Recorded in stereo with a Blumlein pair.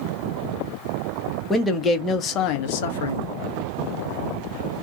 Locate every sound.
1.5 s a man speaking: 10° left, 1.1 m; by 3.3 s 70° left, 0.8 m